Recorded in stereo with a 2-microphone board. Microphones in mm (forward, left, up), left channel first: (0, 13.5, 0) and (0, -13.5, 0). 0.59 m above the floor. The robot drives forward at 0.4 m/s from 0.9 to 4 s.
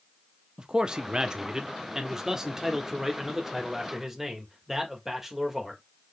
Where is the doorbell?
No doorbell in this recording.